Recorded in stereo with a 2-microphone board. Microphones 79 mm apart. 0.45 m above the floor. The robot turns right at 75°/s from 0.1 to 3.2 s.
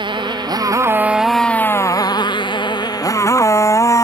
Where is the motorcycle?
90° right; by 4.1 s 40° left (ahead or behind).